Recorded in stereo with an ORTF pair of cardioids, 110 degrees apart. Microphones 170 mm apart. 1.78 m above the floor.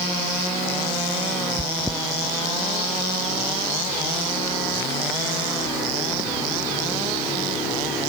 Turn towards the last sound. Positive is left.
turn(degrees=10)